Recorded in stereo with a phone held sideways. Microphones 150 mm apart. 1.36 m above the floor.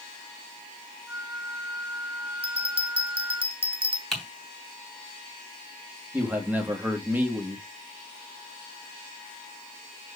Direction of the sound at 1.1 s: 20° right (ahead or behind).